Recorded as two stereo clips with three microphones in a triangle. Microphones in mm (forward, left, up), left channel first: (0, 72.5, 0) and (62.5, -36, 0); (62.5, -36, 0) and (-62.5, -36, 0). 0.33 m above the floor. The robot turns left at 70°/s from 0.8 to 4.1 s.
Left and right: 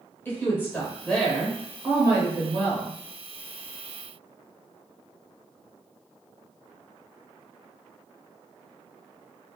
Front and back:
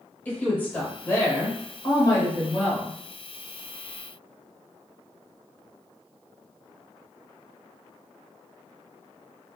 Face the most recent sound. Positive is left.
turn(degrees=-170)